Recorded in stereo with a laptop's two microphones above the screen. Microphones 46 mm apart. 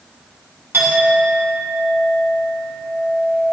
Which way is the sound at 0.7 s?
55° right (ahead or behind).